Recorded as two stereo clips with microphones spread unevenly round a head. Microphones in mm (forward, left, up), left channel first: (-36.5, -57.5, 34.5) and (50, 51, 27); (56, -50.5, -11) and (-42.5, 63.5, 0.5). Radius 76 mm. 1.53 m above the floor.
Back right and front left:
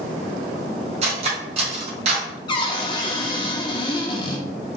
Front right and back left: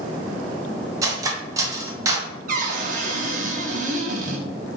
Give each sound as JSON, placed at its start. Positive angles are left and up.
{"t": 1.0, "sound": "cutlery clinking", "azimuth_deg": 80, "distance_m": 0.7}
{"t": 2.5, "sound": "a cupboard door", "azimuth_deg": 170, "distance_m": 0.6}